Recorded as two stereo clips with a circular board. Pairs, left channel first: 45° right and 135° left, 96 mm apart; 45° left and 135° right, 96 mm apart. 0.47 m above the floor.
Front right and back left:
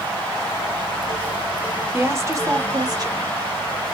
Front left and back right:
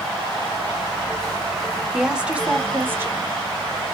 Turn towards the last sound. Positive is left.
turn(degrees=165)